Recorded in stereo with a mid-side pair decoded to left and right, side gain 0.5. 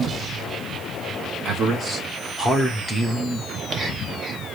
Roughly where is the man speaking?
Ahead right.